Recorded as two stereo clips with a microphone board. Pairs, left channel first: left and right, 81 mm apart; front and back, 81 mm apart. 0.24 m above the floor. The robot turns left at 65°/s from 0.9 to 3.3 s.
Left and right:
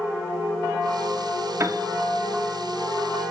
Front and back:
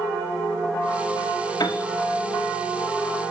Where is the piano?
35° right, 1.3 m; by 1.9 s 50° right, 1.3 m.